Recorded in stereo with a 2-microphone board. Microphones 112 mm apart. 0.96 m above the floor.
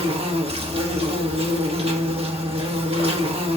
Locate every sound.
0.0 s an insect: 60° right (ahead or behind), 1.3 m